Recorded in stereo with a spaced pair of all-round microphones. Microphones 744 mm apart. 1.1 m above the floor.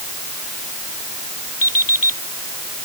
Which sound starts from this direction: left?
An alarm clock, at 1.6 s.